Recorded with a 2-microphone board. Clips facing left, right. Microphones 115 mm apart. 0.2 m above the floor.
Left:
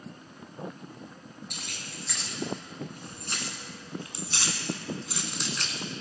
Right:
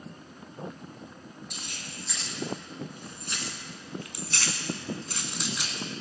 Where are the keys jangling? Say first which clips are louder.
Even; 70° left (ahead or behind), 1.9 m; by 6.0 s 15° right (ahead or behind), 1.3 m.